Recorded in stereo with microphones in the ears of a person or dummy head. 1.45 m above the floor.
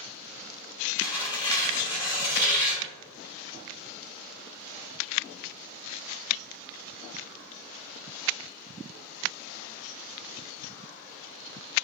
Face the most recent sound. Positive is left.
turn(degrees=20)  # may be behind; listen again after turning